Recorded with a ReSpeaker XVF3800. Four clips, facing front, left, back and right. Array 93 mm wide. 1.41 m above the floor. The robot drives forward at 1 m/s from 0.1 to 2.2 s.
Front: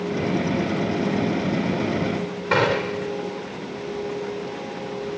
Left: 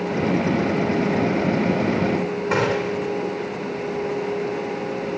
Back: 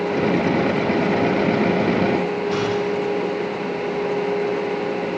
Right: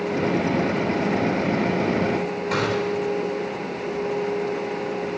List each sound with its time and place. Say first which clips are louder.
2.5 s a gunshot: left 2 dB, front 5 dB; 25° left, 3.5 m